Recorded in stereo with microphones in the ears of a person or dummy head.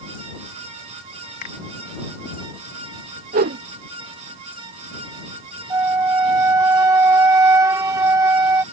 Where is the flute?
20° right (ahead or behind).